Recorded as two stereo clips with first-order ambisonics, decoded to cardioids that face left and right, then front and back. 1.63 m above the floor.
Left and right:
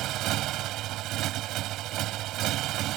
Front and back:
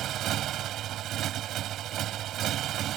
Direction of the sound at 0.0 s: 130° right.